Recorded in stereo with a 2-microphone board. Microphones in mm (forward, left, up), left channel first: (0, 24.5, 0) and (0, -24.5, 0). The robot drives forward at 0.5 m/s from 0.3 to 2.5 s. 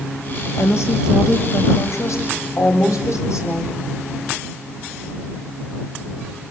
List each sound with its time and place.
0.6 s a woman speaking: 65° left (ahead or behind), 2.5 m; by 3.8 s 80° left, 2.5 m